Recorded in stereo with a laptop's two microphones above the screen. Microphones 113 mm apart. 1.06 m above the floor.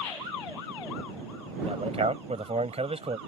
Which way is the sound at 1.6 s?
65° right (ahead or behind).